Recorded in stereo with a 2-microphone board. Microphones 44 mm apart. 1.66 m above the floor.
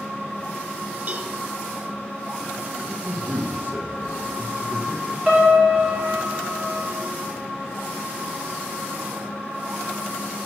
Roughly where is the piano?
Right.